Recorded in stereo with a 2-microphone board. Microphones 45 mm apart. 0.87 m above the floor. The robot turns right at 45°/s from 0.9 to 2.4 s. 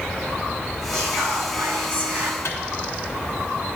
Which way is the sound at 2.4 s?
80° left.